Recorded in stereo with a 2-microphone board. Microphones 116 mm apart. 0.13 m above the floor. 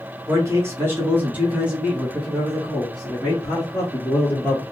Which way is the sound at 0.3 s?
25° right (ahead or behind).